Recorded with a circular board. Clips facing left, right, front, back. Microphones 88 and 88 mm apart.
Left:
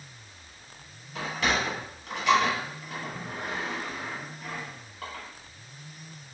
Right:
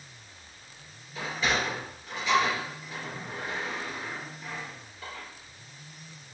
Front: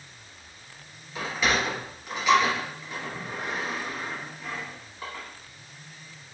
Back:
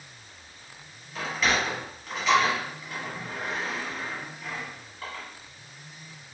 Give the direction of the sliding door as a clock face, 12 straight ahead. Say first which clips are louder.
Left 1 dB, even; 9 o'clock.